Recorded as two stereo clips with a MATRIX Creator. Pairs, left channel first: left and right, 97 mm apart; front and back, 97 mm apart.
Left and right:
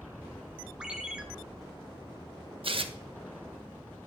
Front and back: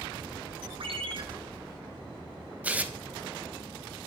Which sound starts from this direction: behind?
A ringtone, at 0.8 s.